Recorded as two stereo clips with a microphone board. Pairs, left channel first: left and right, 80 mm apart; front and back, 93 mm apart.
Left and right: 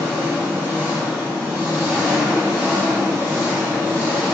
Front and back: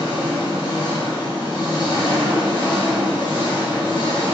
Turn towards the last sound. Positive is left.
turn(degrees=-20)